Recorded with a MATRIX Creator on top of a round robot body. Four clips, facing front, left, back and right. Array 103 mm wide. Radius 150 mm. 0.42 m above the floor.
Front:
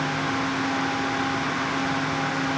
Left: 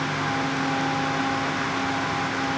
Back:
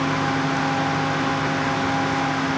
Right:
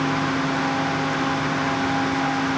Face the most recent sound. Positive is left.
No sound to turn to.